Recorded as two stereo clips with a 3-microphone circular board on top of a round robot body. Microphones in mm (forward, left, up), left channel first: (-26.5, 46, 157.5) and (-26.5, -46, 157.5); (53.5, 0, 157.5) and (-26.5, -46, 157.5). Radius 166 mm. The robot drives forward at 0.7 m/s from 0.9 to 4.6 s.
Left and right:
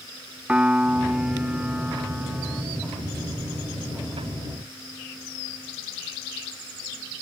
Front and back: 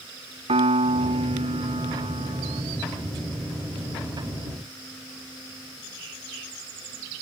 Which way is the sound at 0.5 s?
170° right.